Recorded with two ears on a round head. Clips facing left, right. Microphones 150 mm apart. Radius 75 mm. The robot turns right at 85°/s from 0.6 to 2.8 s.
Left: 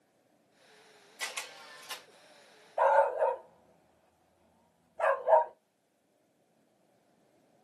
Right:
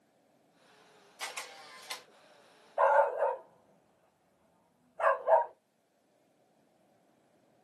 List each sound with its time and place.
1.2 s a camera shutter: 10° left (ahead or behind), 1.1 m; by 2.0 s 20° right (ahead or behind), 1.1 m
2.8 s a dog barking: 5° left (ahead or behind), 1.4 m; by 5.5 s 10° left (ahead or behind), 1.4 m